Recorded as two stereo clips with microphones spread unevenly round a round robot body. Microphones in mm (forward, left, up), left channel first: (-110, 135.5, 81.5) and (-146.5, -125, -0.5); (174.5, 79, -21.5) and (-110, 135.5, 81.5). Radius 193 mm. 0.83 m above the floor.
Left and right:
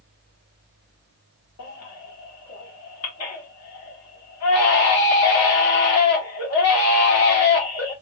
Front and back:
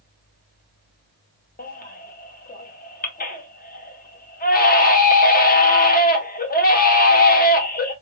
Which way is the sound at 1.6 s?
35° left.